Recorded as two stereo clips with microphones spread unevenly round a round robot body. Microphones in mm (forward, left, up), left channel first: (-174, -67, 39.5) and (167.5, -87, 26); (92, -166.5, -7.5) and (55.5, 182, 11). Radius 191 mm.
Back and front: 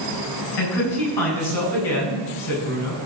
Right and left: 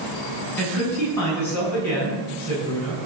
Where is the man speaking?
170° right, 7 m.